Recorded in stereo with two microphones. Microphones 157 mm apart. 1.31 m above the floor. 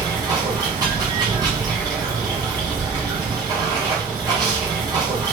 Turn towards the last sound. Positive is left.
turn(degrees=-25)  # may be behind; listen again after turning